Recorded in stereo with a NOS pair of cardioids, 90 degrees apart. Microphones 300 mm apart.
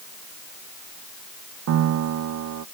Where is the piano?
60° right.